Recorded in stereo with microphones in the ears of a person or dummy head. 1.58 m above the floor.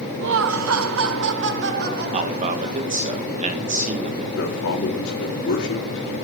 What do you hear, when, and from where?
0.2 s laughter: 60° right (ahead or behind), 1.0 m; by 3.0 s 50° right (ahead or behind), 3 m
2.1 s a man speaking: 40° right (ahead or behind), 1.7 m
4.3 s a man speaking: 70° left (ahead or behind), 3.5 m